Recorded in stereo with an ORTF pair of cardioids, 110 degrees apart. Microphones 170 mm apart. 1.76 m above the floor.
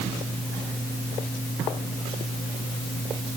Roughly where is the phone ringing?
No phone ringing in this recording.